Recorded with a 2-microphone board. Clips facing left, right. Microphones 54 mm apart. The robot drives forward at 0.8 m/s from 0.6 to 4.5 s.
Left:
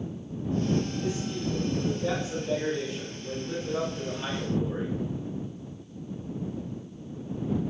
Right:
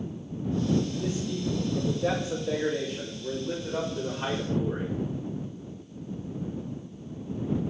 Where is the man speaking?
75° right (ahead or behind), 4 m; by 5.0 s 45° right (ahead or behind), 5.5 m.